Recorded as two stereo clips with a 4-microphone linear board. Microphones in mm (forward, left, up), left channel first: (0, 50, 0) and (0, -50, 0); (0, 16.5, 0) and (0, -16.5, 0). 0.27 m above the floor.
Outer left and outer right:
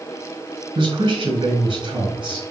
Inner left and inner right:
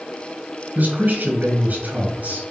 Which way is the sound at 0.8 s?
50° right (ahead or behind).